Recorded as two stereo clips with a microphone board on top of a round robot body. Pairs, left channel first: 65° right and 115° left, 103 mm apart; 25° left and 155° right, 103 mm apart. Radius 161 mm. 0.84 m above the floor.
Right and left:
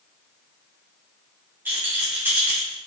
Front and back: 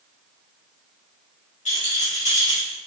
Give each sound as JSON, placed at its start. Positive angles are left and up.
{"t": 1.6, "sound": "a rattle", "azimuth_deg": 40, "distance_m": 2.5}